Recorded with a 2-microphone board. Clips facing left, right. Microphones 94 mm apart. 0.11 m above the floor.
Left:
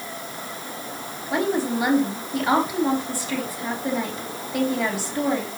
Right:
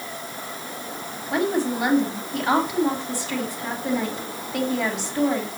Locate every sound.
1.3 s a woman speaking: 10° left (ahead or behind), 4 m